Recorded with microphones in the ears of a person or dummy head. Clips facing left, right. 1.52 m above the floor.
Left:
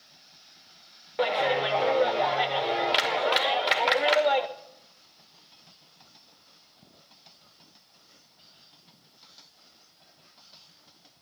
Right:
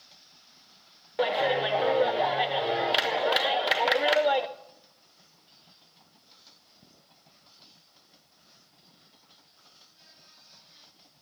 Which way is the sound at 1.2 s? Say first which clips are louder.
Even; centre (ahead or behind).